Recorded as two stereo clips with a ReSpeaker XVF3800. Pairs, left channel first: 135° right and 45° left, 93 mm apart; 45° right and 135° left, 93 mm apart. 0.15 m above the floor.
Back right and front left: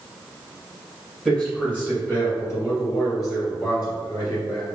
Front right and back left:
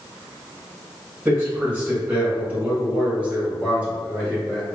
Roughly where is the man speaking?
Behind.